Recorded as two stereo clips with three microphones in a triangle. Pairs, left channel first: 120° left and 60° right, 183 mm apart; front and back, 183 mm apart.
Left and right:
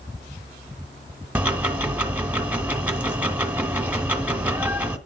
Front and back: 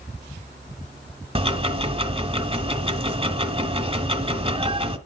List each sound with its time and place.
1.4 s ticking: 140° right, 1.2 m